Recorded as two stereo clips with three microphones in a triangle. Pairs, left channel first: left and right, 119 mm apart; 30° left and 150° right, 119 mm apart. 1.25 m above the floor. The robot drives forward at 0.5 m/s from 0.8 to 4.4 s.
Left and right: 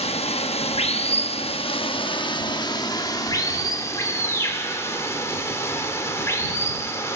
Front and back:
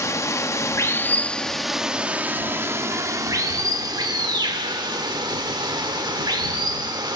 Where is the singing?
No singing in this recording.